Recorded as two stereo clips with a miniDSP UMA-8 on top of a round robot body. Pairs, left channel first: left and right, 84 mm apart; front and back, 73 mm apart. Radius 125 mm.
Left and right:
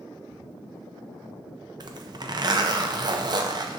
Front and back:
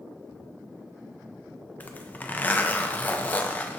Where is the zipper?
65° right, 0.5 m.